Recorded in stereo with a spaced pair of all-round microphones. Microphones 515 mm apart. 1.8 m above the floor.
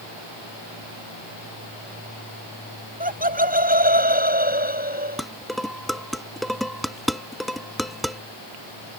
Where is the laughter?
15° right (ahead or behind).